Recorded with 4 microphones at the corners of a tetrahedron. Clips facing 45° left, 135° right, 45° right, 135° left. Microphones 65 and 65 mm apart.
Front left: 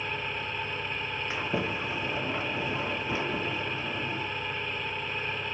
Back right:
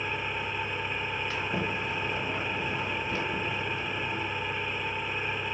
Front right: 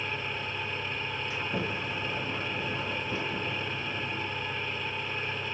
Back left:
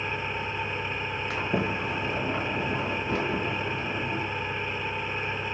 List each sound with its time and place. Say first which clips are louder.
0.0 s an engine running: back right 1 dB, back left 3 dB; 160° left, 1.3 m
1.3 s a sliding door: front left 3 dB, back left 6 dB; 115° left, 2.5 m